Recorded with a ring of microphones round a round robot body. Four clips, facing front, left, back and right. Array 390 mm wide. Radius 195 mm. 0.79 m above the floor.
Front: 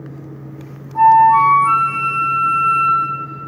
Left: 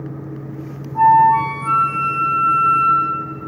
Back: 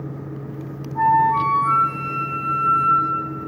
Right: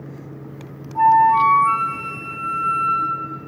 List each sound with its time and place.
0.9 s a flute: straight ahead, 3.5 m